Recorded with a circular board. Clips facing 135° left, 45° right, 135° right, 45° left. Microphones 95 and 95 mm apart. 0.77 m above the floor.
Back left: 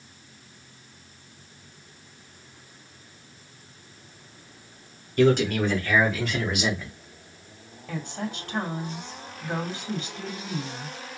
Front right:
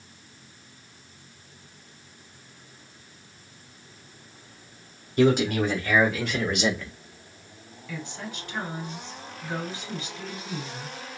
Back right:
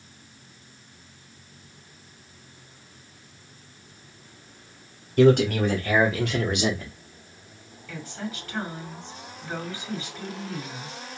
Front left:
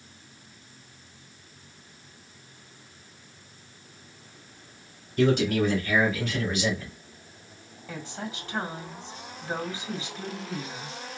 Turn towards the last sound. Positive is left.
turn(degrees=105)